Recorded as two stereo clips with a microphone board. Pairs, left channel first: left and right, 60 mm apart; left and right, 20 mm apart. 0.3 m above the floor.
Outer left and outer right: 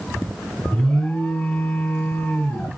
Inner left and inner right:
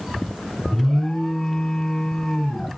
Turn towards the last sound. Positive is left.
turn(degrees=10)  # may be behind; listen again after turning